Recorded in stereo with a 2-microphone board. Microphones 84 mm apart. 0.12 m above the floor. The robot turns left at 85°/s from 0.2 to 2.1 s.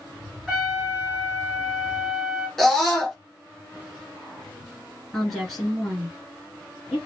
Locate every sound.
0.5 s a trumpet: 10° right, 1.6 m; by 2.5 s 150° right, 1.6 m
2.6 s a scream: 5° left (ahead or behind), 1.1 m
5.1 s a woman speaking: centre (ahead or behind), 1.7 m